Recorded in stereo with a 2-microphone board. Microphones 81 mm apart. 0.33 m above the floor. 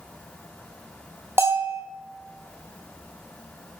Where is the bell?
30° right (ahead or behind), 2 m.